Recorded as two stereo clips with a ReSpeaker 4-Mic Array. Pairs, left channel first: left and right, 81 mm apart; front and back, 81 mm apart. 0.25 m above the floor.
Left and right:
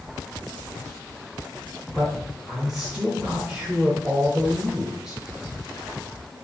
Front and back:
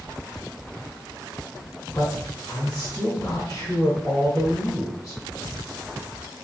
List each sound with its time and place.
1.9 s a man speaking: 10° right, 2 m